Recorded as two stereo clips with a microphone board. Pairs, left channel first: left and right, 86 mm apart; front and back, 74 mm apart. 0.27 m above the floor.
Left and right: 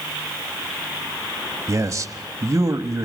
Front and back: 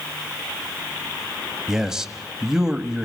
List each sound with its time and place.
1.7 s a man speaking: 100° right, 1.2 m